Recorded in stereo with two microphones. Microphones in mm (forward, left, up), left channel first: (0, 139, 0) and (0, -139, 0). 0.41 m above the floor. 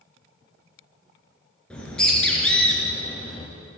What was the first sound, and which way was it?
A bird, 5° left (ahead or behind).